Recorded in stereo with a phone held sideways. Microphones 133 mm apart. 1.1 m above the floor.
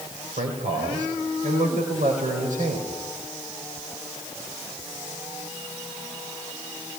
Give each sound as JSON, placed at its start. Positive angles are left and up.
{"t": 0.4, "sound": "a man speaking", "side_deg": -80, "distance_m": 5.0}